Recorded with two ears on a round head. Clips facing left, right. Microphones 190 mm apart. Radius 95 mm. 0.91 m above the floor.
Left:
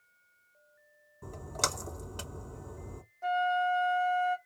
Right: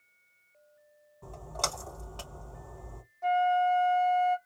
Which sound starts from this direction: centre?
A flute, at 3.2 s.